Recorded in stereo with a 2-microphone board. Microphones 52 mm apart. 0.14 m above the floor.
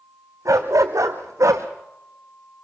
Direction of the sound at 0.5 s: 85° right.